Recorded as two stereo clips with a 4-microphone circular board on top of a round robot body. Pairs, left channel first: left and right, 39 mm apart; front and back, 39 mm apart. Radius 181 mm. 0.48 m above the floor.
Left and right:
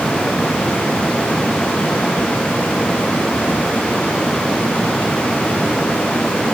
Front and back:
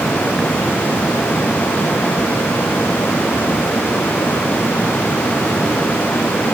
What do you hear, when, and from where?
Only background noise.